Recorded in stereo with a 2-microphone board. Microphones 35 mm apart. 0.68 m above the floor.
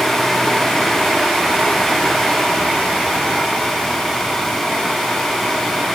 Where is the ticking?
I don't hear ticking.